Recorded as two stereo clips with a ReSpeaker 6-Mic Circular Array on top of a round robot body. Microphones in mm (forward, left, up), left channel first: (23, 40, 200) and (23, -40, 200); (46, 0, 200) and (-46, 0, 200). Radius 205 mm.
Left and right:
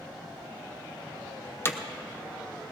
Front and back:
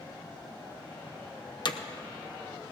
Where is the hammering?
30° left, 0.9 m.